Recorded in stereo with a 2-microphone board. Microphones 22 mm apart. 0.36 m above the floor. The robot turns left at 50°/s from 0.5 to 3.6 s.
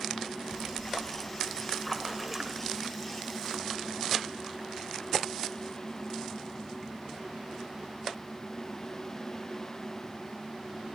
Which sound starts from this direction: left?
A splash, at 0.5 s.